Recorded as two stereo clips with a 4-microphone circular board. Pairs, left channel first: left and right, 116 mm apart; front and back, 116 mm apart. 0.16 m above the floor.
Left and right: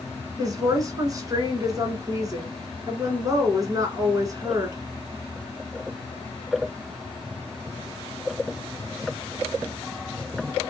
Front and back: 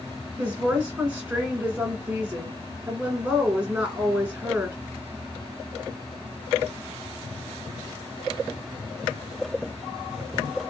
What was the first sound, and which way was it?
A woman speaking, 105° right.